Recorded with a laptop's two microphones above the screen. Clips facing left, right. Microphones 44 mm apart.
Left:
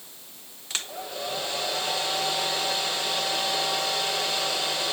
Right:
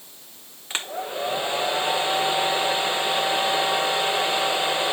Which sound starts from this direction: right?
A hair dryer, at 0.7 s.